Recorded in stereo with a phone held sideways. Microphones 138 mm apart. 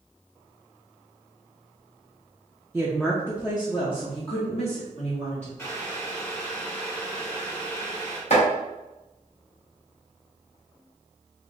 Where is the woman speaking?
10° right (ahead or behind), 0.6 m; by 5.5 s 60° left (ahead or behind), 1.6 m.